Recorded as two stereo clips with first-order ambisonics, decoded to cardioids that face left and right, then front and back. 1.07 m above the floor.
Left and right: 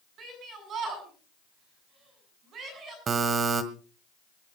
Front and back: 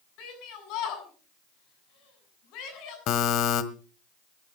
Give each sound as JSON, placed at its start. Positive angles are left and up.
{"t": 0.2, "sound": "a shout", "azimuth_deg": -35, "distance_m": 7.5}
{"t": 3.1, "sound": "a buzzer", "azimuth_deg": -30, "distance_m": 1.4}